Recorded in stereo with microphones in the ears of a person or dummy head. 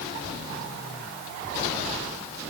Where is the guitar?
I don't hear a guitar.